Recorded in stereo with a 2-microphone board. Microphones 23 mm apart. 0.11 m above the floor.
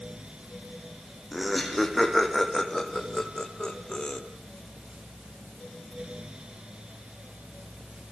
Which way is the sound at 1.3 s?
5° right (ahead or behind).